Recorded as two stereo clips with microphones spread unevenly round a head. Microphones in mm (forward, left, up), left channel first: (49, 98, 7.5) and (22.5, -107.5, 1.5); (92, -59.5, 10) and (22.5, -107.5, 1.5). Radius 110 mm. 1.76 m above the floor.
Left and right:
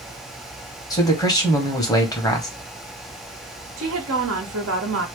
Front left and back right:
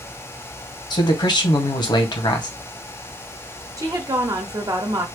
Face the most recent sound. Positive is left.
turn(degrees=-100)